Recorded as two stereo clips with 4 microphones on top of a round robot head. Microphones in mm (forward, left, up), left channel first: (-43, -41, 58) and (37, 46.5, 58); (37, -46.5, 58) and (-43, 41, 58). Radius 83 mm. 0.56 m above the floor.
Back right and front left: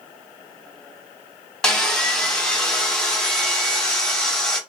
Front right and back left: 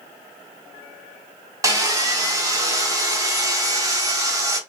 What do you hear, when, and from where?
1.6 s sawing: 150° left, 0.9 m